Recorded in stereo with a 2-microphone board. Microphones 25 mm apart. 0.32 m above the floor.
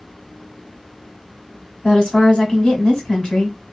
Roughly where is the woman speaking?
Left.